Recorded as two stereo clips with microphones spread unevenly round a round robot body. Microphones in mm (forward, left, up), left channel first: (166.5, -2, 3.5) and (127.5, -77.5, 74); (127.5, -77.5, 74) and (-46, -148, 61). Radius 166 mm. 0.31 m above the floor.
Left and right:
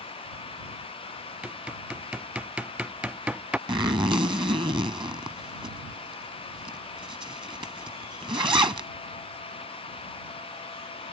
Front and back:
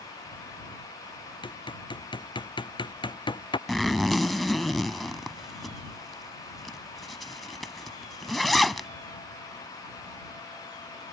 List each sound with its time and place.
1.4 s hammering: 45° right
3.7 s a zipper: 70° right